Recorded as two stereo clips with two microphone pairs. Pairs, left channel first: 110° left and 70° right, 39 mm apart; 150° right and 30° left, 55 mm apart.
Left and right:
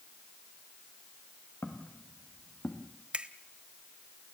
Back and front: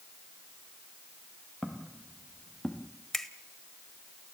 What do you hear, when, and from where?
1.6 s footsteps: 125° left, 3 m; by 2.9 s 140° left, 1.9 m
3.1 s a finger snap: 70° right, 0.8 m